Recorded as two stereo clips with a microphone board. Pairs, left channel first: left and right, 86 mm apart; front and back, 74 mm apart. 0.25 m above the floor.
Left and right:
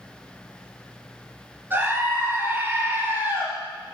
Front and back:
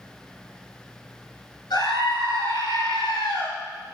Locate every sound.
1.7 s a scream: 20° right, 4.5 m